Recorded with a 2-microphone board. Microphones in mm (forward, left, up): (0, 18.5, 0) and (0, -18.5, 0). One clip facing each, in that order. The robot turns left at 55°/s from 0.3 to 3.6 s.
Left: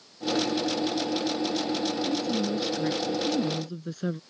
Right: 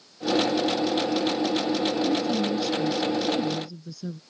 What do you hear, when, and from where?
2.0 s a woman speaking: 160° right; by 4.2 s 115° left